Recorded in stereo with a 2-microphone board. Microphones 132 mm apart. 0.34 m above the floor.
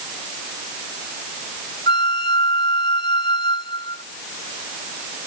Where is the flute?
40° left (ahead or behind).